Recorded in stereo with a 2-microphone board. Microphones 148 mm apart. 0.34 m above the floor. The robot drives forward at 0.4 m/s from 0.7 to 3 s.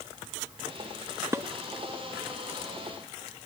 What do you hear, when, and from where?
1.3 s dishes clattering: 20° right (ahead or behind), 0.8 m